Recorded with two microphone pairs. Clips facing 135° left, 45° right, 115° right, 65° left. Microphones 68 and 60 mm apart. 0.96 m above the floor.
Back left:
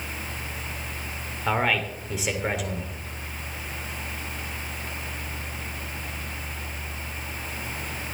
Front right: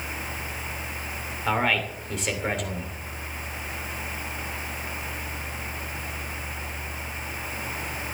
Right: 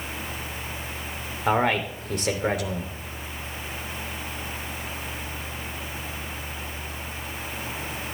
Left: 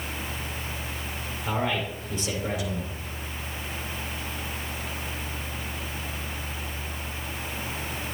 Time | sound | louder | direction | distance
1.5 | a man speaking | even, right 6 dB | 140° right | 2.5 m